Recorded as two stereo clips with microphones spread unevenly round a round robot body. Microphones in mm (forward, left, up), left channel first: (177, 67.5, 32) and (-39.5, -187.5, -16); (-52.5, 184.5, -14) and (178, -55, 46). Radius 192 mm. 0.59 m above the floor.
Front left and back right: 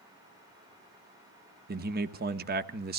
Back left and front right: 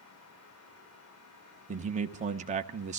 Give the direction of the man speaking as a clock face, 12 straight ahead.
4 o'clock.